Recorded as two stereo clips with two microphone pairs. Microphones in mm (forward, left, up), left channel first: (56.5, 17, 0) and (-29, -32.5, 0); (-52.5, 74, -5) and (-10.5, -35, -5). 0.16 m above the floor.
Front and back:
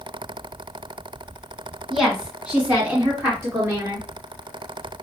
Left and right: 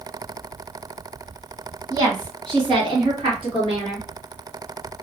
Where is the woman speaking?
60° right, 1.8 m; by 4.1 s 95° right, 2.5 m.